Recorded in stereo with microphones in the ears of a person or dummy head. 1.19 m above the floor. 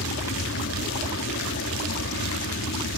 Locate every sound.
0.0 s an aircraft: 60° left (ahead or behind)